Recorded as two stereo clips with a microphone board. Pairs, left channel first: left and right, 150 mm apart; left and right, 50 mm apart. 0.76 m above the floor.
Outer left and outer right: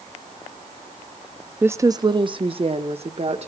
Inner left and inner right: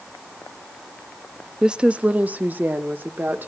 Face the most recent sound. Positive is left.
turn(degrees=-50)  # may be behind; listen again after turning